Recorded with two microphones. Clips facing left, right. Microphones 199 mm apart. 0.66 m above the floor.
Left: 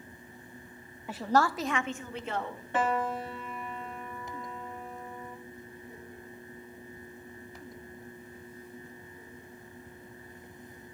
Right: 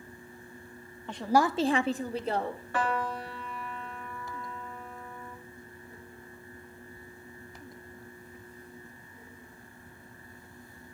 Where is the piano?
20° left (ahead or behind), 1.8 m.